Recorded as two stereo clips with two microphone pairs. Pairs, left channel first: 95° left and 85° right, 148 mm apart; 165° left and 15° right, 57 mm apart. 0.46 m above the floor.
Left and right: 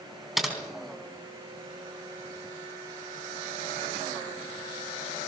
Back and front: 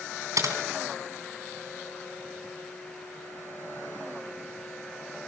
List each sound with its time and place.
0.4 s typing on a keyboard: 5° left, 3.5 m